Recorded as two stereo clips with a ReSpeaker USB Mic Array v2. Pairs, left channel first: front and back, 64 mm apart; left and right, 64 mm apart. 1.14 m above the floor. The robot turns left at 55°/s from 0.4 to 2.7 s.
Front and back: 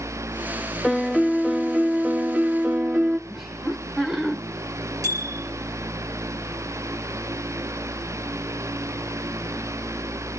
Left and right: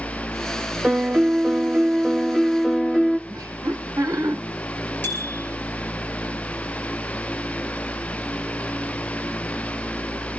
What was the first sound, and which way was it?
A piano, 70° right.